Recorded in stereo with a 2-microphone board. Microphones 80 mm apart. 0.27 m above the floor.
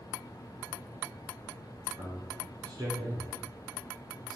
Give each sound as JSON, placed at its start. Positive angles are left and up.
{"t": 2.0, "sound": "a man speaking", "side_deg": -60, "distance_m": 2.5}